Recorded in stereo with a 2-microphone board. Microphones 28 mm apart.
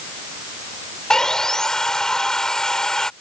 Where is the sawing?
20° left (ahead or behind).